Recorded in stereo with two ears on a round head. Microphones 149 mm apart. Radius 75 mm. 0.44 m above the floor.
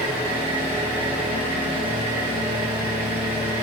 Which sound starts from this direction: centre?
An engine running, at 0.0 s.